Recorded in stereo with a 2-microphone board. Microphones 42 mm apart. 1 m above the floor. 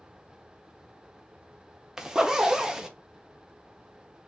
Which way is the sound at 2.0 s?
15° right (ahead or behind).